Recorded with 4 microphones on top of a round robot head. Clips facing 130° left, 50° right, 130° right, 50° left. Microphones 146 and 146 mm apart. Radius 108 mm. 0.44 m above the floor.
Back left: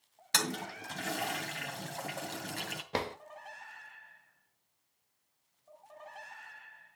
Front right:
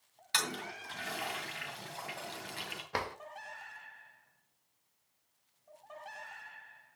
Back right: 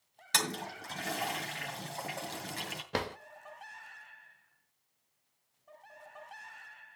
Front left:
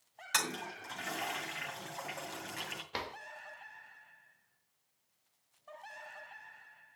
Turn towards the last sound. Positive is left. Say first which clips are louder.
# back left 3 dB, back right 7 dB
turn(degrees=-165)